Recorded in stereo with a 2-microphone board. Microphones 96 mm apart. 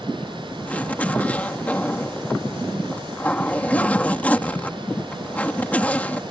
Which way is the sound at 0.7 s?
15° left (ahead or behind).